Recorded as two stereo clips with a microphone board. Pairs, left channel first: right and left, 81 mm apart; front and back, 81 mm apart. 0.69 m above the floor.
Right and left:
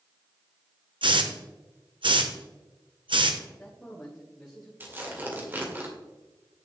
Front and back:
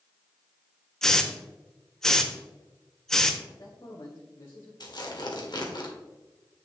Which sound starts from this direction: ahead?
A man speaking, at 3.5 s.